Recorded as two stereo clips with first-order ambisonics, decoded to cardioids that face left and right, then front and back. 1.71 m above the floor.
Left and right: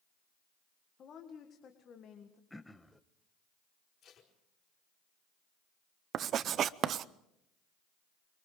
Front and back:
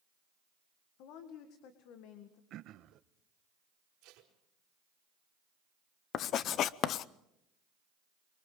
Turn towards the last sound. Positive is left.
turn(degrees=-40)